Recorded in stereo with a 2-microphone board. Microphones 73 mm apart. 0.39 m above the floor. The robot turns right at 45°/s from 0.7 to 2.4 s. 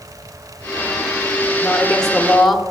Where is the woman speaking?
10° left (ahead or behind), 0.8 m; by 2.6 s centre (ahead or behind), 0.8 m.